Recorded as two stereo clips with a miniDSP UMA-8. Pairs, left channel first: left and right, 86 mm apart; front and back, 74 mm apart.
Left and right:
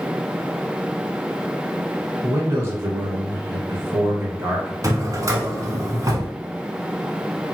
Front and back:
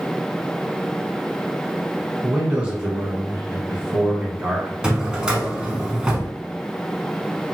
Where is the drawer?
105° right, 0.7 m.